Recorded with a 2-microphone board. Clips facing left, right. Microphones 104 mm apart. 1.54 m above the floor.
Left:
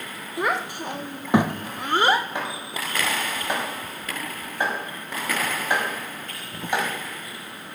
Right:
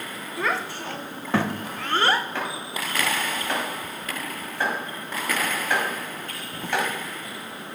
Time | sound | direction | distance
0.4 | a child speaking | 15° left (ahead or behind) | 0.9 m
2.4 | chopping | 15° left (ahead or behind) | 4.5 m